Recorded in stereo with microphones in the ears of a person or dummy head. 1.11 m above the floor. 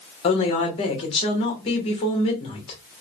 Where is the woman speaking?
35° left (ahead or behind), 1.1 m.